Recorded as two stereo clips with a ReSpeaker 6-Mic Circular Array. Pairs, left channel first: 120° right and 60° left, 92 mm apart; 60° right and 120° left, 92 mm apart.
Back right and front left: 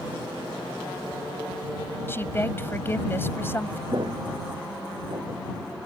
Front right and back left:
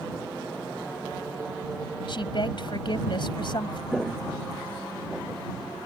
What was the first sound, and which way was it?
A woman speaking, 60° right.